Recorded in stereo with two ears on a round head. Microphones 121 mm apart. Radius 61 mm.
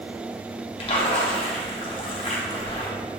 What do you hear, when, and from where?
0.8 s a splash: 40° left (ahead or behind), 0.7 m